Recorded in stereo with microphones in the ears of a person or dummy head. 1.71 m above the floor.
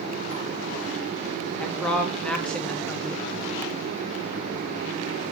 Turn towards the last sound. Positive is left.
turn(degrees=5)  # may be behind; listen again after turning